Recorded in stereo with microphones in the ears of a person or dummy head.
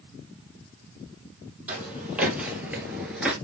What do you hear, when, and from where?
1.7 s footsteps: 10° right (ahead or behind), 3 m